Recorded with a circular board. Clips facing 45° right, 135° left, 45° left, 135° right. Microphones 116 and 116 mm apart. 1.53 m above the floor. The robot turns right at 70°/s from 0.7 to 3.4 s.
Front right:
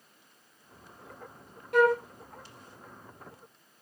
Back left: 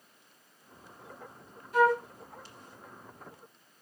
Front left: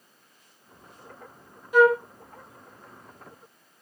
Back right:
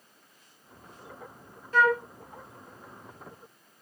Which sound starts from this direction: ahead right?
A flute, at 1.7 s.